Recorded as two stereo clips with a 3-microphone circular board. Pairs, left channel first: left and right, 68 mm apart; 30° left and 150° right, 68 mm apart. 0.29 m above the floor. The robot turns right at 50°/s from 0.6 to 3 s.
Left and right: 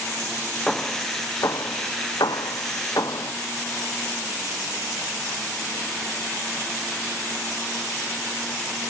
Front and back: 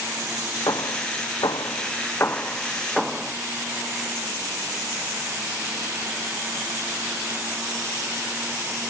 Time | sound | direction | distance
0.7 | hammering | 5° left | ?